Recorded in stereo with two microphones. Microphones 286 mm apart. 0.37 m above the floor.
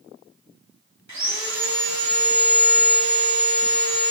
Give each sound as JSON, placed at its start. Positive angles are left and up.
{"t": 1.1, "sound": "sawing", "side_deg": -75, "distance_m": 0.9}